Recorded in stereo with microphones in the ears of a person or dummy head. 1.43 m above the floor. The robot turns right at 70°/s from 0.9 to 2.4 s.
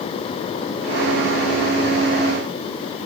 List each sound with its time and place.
Only background noise.